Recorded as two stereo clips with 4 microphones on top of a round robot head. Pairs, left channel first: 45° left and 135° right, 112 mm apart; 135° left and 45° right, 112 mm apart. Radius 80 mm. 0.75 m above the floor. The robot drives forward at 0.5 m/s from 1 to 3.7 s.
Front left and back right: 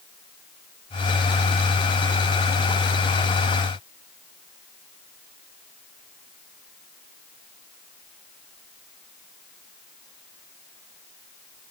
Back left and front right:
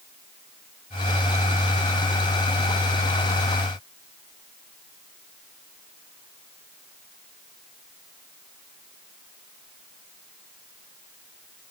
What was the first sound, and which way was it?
Only background noise.